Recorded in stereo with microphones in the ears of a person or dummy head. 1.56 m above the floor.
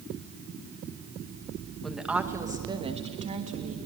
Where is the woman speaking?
Centre (ahead or behind), 1.9 m; by 3.8 s 40° right (ahead or behind), 3 m.